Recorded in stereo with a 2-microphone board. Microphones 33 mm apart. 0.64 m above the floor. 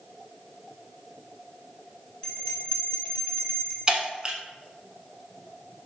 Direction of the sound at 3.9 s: 25° right (ahead or behind).